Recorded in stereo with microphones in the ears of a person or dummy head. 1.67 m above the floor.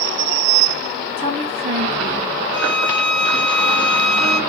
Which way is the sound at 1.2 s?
40° right (ahead or behind).